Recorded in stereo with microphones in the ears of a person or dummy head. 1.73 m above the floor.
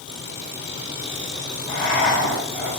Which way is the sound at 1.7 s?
65° left (ahead or behind).